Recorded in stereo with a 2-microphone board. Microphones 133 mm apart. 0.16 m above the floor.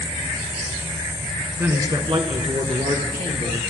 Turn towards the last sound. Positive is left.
turn(degrees=-70)  # may be behind; listen again after turning